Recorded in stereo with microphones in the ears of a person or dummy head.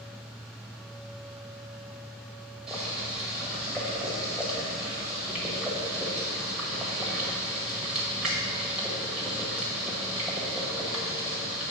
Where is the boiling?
5° right (ahead or behind), 1.5 m.